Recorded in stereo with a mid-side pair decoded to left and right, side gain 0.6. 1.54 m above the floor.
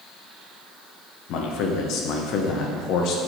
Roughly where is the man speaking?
Ahead left.